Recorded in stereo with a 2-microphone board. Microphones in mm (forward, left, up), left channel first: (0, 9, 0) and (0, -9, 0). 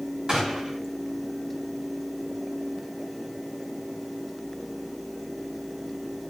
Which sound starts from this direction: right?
A gunshot, at 0.3 s.